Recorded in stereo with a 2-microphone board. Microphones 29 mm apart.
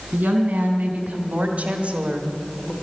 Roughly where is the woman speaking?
Right.